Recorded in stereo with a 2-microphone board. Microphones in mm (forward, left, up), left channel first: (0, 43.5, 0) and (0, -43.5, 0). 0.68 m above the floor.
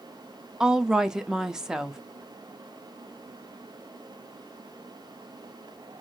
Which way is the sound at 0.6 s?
5° right (ahead or behind).